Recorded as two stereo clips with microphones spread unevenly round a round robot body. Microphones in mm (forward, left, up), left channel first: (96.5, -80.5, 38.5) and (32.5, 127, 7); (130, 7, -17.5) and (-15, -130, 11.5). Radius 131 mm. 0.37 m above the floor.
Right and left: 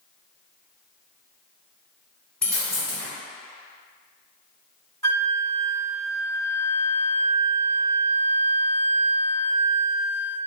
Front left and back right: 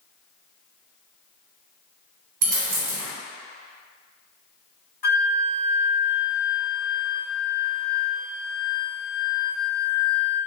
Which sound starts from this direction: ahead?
A flute, at 5.0 s.